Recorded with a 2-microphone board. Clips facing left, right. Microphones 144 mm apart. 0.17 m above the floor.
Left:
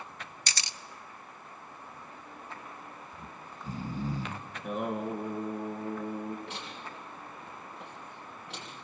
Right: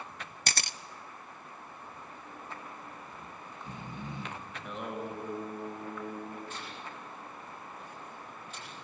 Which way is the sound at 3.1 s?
35° left (ahead or behind).